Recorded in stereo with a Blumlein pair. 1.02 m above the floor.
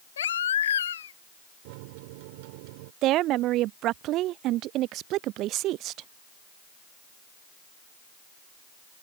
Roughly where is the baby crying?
Ahead left.